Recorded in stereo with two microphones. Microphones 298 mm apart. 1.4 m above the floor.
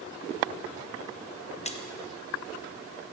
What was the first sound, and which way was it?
A splash, 20° left (ahead or behind).